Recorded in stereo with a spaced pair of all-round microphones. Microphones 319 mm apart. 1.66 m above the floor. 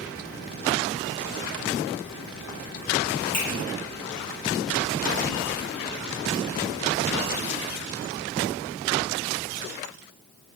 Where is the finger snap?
45° left (ahead or behind), 1.1 m.